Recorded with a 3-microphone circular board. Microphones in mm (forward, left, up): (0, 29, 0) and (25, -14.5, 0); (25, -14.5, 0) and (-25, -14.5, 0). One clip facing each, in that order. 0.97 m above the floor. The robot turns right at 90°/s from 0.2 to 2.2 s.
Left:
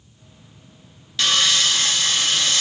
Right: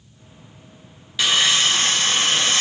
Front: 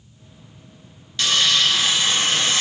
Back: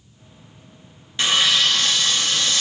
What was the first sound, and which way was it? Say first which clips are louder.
Sawing: right 1 dB, back 1 dB; 130° right.